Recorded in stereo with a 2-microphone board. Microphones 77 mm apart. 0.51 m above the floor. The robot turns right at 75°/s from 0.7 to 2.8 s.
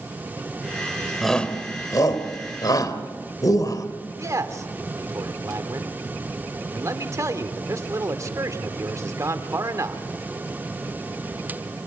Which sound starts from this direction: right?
A man speaking, at 4.2 s.